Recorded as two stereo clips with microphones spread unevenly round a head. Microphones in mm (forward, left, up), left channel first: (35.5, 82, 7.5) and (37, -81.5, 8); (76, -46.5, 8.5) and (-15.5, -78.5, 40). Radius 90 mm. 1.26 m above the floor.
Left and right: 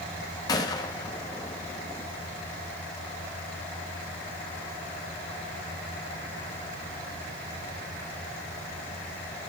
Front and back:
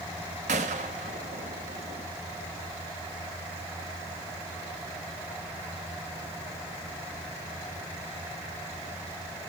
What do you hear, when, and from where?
0.5 s a gunshot: 160° left, 1.1 m